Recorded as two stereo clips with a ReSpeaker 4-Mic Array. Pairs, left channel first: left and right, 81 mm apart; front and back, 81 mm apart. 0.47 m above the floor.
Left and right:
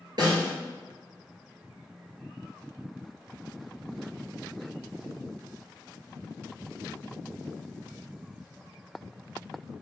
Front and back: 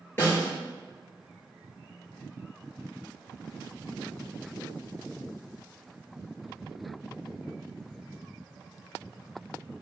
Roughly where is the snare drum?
Ahead right.